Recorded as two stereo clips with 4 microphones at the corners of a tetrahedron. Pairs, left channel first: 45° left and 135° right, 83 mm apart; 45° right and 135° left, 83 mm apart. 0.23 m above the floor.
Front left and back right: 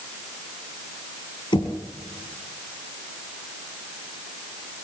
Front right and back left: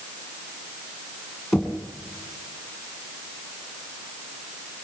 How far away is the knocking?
About 4 m.